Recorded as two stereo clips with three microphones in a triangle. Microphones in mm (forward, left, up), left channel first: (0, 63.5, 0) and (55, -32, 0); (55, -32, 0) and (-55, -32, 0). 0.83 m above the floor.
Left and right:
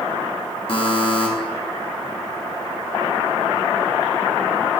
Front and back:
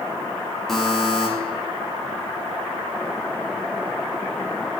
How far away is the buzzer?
About 1.5 m.